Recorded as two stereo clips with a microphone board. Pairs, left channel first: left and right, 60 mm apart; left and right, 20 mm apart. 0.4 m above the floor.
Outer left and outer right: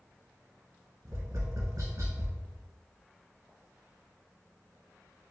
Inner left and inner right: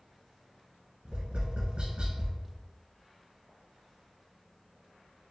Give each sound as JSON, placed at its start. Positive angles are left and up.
{"t": 1.1, "sound": "tapping", "side_deg": -75, "distance_m": 1.6}